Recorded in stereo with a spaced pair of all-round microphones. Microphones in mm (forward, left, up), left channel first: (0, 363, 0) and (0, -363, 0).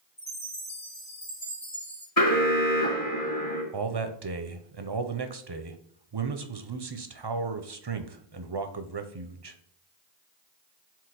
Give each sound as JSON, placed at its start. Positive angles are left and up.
{"t": 0.2, "sound": "a chime", "side_deg": 50, "distance_m": 3.0}
{"t": 2.2, "sound": "an alarm", "side_deg": 55, "distance_m": 1.9}
{"t": 3.7, "sound": "a man speaking", "side_deg": -35, "distance_m": 0.7}